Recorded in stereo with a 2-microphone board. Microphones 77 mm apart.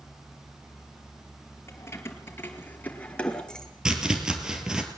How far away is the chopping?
About 2.5 m.